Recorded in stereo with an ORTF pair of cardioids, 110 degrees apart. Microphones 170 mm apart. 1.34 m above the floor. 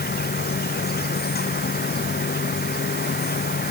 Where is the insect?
70° left.